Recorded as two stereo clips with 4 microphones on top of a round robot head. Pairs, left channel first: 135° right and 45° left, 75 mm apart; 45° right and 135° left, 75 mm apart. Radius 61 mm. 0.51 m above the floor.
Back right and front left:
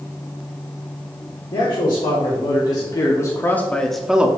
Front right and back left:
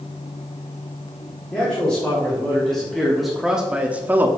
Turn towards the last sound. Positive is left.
turn(degrees=105)